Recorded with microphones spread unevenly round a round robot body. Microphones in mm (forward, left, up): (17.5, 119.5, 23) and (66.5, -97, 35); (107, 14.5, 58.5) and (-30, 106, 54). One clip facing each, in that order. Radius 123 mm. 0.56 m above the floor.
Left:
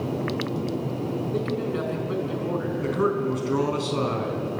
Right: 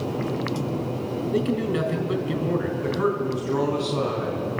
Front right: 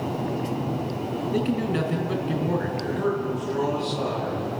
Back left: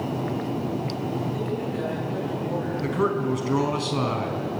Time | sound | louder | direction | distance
1.3 | a man speaking | right 6 dB, front right 4 dB | 20° right | 5 m
2.8 | a man speaking | even, back left 1 dB | 160° left | 4.5 m